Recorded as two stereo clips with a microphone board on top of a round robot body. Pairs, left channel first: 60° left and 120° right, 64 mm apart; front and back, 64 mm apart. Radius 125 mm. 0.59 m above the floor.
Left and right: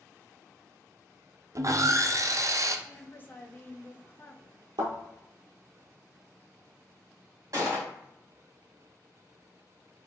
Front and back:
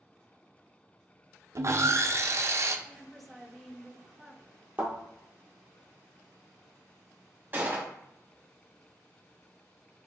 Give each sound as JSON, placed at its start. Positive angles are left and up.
{"t": 1.6, "sound": "sawing", "azimuth_deg": -145, "distance_m": 0.5}
{"t": 2.9, "sound": "a woman speaking", "azimuth_deg": 85, "distance_m": 0.8}
{"t": 4.8, "sound": "a thud", "azimuth_deg": -115, "distance_m": 1.2}
{"t": 7.5, "sound": "a gunshot", "azimuth_deg": -125, "distance_m": 1.9}